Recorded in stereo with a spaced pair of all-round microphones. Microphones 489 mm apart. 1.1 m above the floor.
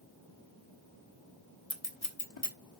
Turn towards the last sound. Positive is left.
turn(degrees=65)  # may be behind; listen again after turning